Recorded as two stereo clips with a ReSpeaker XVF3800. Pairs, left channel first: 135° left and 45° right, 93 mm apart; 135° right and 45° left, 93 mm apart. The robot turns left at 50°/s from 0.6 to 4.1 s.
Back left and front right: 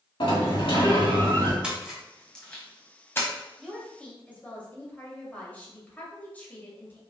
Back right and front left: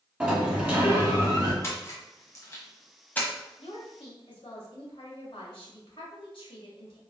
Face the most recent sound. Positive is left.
turn(degrees=-150)